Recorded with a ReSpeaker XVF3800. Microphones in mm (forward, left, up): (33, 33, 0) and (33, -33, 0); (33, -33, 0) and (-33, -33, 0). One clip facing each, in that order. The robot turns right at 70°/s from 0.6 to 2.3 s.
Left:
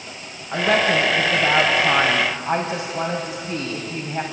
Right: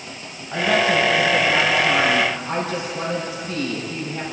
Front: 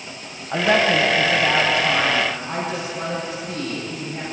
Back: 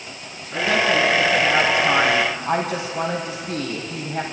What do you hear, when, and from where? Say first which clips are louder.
0.5 s a woman speaking: even, front 2 dB; 15° left, 3.5 m; by 4.2 s 135° left, 3.5 m